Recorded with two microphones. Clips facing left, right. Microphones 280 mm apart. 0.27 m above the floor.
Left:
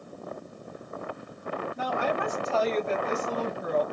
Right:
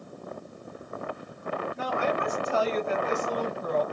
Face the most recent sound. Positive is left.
turn(degrees=15)  # may be behind; listen again after turning